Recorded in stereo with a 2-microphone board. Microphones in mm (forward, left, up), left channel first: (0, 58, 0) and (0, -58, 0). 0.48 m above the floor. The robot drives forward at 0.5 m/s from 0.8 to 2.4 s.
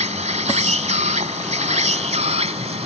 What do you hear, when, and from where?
0.0 s an insect: 80° right; by 2.9 s 70° right (ahead or behind)